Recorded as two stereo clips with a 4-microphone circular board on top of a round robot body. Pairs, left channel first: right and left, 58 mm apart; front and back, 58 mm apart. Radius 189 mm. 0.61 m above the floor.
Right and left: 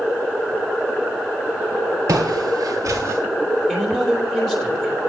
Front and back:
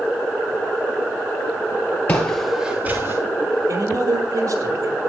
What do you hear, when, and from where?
2.1 s footsteps: 60° left, 1.1 m; by 3.2 s 135° left, 1.4 m
3.7 s a man speaking: 175° right, 4 m